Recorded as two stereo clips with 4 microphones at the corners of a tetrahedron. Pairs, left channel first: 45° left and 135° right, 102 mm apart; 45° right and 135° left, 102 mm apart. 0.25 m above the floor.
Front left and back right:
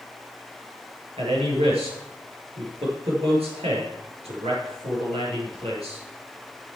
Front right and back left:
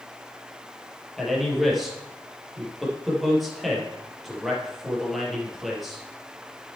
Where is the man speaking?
135° right, 4.5 m.